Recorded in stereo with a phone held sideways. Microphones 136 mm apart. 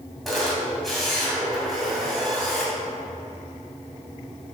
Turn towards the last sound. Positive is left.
turn(degrees=0)  # may be behind; listen again after turning